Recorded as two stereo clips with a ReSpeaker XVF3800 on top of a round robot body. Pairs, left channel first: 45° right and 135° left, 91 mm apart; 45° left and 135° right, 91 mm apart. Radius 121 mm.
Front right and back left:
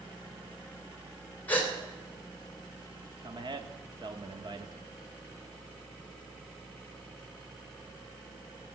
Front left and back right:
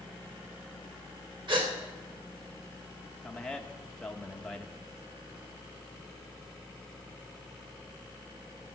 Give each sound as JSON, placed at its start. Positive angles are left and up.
{"t": 1.5, "sound": "a gasp", "azimuth_deg": -115, "distance_m": 3.0}
{"t": 3.2, "sound": "a man speaking", "azimuth_deg": 125, "distance_m": 1.5}